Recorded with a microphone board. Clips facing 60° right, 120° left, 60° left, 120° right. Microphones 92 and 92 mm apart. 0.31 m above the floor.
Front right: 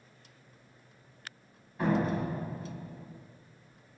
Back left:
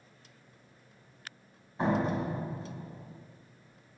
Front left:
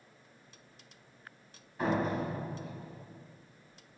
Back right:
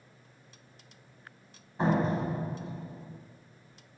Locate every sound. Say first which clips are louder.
1.8 s a door slam: even, back right 3 dB; 175° right, 1.3 m